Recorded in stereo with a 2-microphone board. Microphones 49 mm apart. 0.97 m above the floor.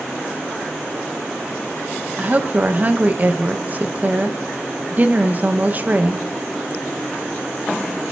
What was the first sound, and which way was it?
A woman speaking, 35° right (ahead or behind).